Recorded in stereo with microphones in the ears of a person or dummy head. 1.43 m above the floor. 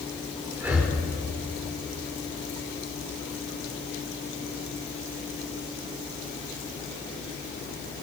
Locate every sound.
0.6 s breathing: 5° right (ahead or behind), 1.3 m